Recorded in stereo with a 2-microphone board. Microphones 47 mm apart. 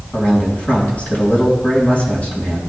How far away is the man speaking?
About 3.5 m.